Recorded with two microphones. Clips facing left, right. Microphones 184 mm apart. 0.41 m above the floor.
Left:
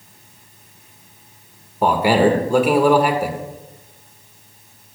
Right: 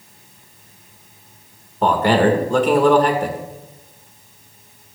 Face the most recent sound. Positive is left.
turn(degrees=10)  # may be behind; listen again after turning